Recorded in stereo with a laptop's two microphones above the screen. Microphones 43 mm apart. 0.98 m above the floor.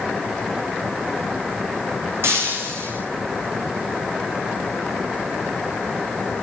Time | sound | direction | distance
2.2 | breaking glass | 70° right (ahead or behind) | 7.5 m